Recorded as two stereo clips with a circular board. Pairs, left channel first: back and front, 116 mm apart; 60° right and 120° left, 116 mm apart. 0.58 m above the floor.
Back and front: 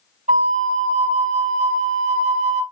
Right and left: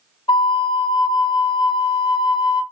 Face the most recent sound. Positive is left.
turn(degrees=-10)